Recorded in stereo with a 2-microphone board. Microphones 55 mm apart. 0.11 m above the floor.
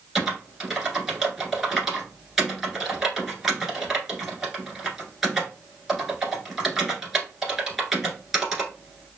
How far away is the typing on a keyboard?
About 1.3 m.